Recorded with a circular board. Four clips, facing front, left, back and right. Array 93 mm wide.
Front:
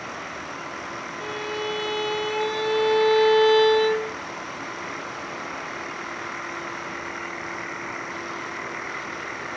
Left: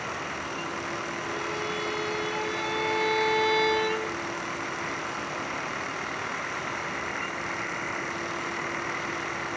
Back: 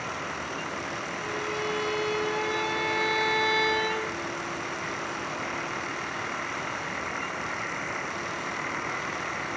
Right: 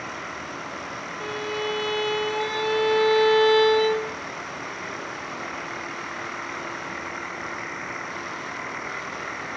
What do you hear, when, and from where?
1.2 s a violin: 45° right, 2.5 m